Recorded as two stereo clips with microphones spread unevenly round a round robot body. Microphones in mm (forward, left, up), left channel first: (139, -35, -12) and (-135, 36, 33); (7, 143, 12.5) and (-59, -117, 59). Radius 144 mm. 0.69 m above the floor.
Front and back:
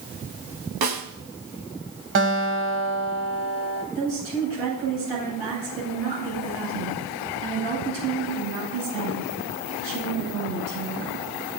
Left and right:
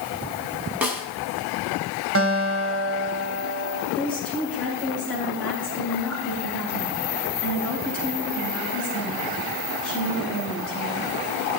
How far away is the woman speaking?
About 10 m.